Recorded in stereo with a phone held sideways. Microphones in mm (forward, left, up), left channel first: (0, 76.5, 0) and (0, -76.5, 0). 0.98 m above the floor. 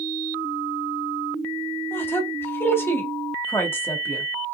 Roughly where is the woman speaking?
Centre.